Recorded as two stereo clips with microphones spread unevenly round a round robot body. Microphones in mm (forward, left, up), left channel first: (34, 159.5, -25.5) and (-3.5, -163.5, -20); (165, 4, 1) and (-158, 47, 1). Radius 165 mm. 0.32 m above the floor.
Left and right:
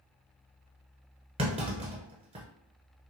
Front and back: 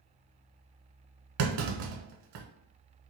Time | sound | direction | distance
1.4 | a clunk | 170° right | 0.8 m